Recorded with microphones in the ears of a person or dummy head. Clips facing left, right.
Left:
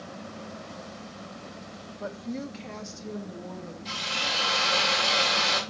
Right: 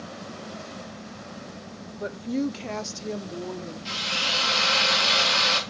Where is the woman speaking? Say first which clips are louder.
Right 7 dB; 20° right (ahead or behind), 0.6 m; by 3.8 s 75° right (ahead or behind), 1.2 m.